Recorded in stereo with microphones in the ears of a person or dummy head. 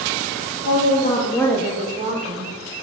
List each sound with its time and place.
0.7 s a woman speaking: 55° left (ahead or behind), 0.8 m; by 2.6 s 45° right (ahead or behind), 1.0 m